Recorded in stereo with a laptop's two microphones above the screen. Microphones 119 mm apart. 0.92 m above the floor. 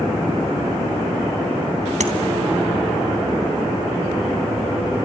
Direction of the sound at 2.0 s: 80° right.